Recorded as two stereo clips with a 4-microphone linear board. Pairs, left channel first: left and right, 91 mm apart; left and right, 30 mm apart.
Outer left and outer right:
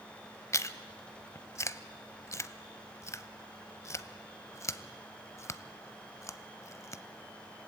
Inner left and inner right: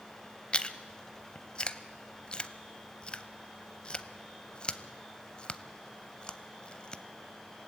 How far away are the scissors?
I don't hear scissors.